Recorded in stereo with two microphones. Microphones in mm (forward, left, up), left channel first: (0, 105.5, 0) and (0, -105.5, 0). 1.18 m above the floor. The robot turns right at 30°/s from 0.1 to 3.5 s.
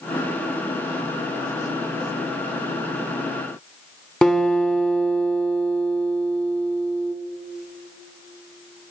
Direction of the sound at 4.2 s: 5° left (ahead or behind).